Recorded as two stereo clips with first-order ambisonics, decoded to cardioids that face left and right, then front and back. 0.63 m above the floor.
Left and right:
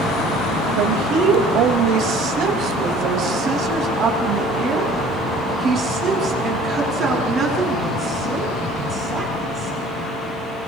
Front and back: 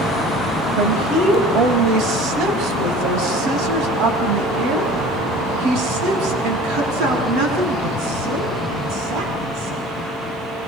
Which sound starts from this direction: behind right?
A woman speaking, at 0.8 s.